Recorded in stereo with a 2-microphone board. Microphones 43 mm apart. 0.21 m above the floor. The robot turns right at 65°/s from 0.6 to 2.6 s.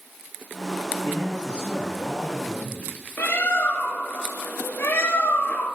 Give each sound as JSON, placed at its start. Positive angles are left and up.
{"t": 1.0, "sound": "a man speaking", "azimuth_deg": 115, "distance_m": 3.0}
{"t": 3.2, "sound": "a bird", "side_deg": 60, "distance_m": 1.0}